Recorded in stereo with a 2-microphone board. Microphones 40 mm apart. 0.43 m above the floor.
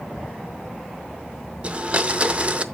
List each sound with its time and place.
1.6 s a blender: 30° right (ahead or behind), 0.6 m